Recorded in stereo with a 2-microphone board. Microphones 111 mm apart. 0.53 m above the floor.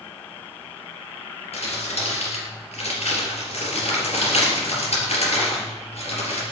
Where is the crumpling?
70° left (ahead or behind), 3.5 m.